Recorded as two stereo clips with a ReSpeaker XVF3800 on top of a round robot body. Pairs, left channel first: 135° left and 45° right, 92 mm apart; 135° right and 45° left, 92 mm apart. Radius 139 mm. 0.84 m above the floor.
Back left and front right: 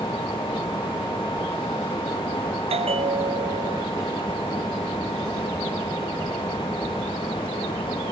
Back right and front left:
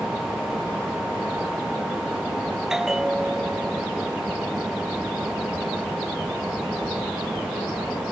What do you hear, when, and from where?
2.7 s a bell: 40° right